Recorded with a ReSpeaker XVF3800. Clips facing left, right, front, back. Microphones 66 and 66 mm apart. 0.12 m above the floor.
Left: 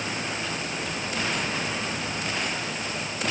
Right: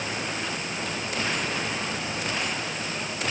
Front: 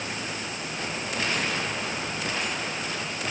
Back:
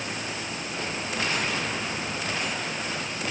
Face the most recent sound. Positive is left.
No sound to turn to.